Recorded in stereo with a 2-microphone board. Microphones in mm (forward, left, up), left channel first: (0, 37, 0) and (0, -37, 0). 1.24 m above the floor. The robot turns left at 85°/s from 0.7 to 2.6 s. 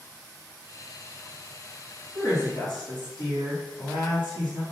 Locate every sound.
2.1 s a woman speaking: 140° left, 1.6 m; by 4.6 s 105° left, 1.6 m